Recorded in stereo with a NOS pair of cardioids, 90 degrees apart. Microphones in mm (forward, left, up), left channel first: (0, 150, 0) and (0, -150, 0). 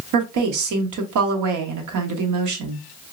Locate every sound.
0.1 s a woman speaking: 70° right, 1.2 m